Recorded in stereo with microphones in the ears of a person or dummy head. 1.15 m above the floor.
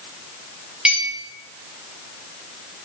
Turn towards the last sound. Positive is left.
turn(degrees=-5)  # may be behind; listen again after turning